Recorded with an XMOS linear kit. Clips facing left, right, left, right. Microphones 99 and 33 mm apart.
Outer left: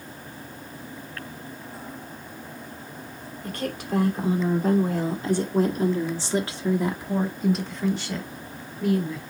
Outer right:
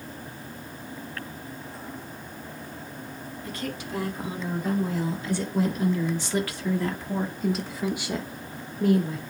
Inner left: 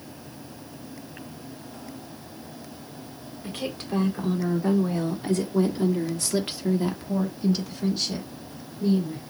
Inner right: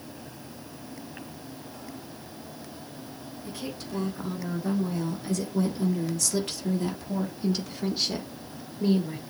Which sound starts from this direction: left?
A woman speaking, at 3.4 s.